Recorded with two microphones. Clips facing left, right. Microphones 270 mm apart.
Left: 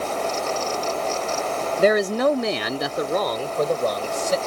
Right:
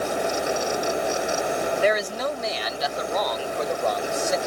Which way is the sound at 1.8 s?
40° left (ahead or behind).